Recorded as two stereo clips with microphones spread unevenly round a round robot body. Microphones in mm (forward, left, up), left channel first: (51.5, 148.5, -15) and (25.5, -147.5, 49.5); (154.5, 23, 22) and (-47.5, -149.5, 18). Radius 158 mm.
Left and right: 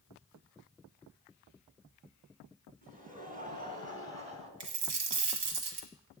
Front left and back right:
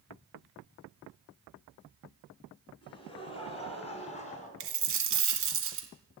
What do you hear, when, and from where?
2.8 s laughter: 30° right, 4.5 m; by 4.5 s 20° right, 3.5 m
4.6 s a dropped coin: 100° right, 2.0 m